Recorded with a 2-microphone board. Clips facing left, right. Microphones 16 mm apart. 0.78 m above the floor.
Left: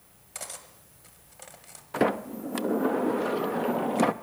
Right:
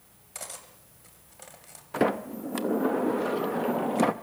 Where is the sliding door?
5° left (ahead or behind), 0.7 m.